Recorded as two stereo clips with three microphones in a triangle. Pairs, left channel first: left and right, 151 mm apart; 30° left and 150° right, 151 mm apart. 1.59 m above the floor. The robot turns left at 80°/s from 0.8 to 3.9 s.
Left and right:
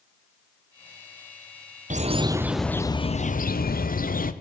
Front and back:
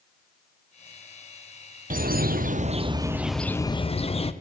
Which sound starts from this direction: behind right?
A bird, at 1.9 s.